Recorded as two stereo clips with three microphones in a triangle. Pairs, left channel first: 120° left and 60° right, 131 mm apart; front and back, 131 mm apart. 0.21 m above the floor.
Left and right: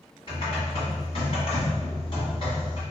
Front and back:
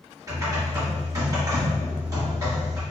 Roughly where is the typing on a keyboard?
Behind left.